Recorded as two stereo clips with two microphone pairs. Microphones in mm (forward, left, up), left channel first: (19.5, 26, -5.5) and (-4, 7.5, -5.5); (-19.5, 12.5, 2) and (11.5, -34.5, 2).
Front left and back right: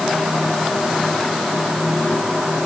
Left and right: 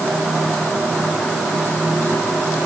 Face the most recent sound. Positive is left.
No sound to turn to.